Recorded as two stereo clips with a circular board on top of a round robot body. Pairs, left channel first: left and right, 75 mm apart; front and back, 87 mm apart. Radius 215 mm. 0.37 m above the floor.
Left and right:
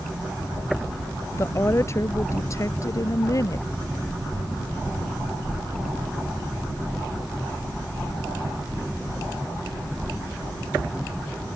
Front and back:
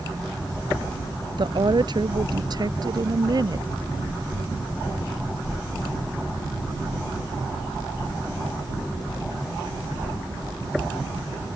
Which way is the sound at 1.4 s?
145° left.